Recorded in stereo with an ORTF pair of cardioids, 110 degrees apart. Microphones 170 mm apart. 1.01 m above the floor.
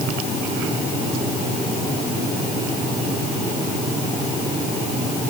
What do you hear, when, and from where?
Only background noise.